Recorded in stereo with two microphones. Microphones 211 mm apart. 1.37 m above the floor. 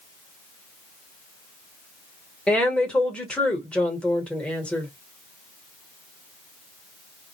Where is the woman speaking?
5° left (ahead or behind), 1.2 m.